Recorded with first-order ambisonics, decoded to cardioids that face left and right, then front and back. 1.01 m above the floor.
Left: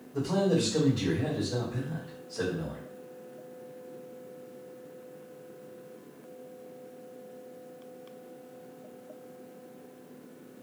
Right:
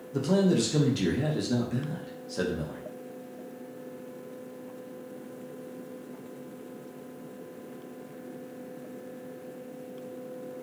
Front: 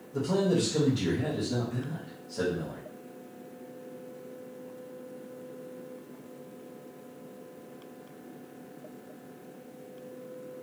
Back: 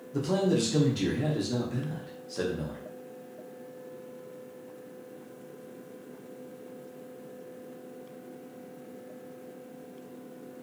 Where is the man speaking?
110° right, 1.0 m.